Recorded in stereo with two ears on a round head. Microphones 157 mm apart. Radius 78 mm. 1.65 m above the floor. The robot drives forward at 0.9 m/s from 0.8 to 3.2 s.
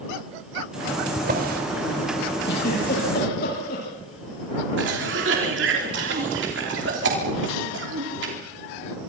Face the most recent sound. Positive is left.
turn(degrees=-75)  # may be behind; listen again after turning